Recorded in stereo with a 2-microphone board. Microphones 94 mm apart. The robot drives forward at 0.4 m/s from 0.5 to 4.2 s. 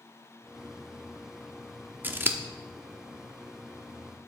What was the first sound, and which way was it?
Scissors, 20° right (ahead or behind).